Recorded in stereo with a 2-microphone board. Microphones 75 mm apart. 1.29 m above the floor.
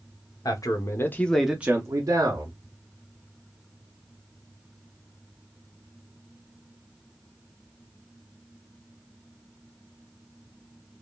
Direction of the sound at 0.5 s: 55° left (ahead or behind).